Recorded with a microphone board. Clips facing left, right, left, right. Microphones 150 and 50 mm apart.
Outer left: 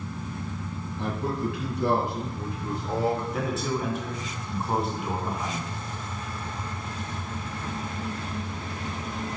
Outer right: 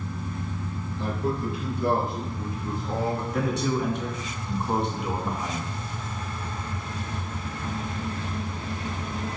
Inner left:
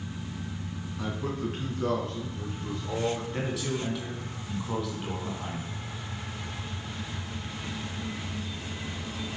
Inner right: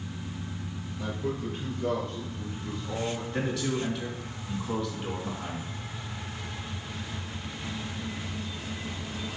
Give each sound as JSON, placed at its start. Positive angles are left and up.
{"t": 1.0, "sound": "a man speaking", "side_deg": 65, "distance_m": 3.0}
{"t": 3.3, "sound": "a man speaking", "side_deg": 0, "distance_m": 2.5}